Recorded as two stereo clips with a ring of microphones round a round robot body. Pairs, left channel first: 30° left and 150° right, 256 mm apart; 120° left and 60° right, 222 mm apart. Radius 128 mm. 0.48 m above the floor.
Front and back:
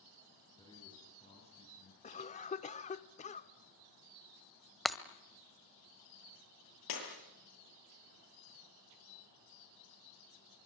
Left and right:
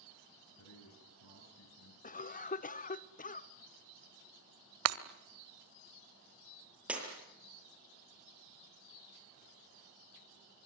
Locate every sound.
0.6 s a man speaking: 105° left, 8.5 m; by 1.9 s 90° left, 8.5 m
2.0 s a cough: 85° left, 1.0 m
4.8 s breaking glass: 60° right, 1.2 m
6.9 s breaking glass: 25° left, 8 m